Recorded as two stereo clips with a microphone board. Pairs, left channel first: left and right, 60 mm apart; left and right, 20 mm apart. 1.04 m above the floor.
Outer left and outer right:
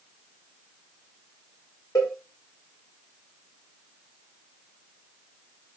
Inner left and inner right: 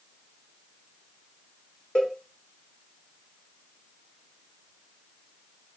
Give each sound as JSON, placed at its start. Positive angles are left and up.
{"t": 1.9, "sound": "a cowbell", "side_deg": 85, "distance_m": 1.5}